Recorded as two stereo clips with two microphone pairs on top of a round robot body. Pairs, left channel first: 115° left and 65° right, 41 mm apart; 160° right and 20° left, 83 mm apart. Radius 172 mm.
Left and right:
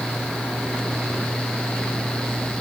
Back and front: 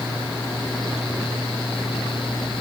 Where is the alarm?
I don't hear an alarm.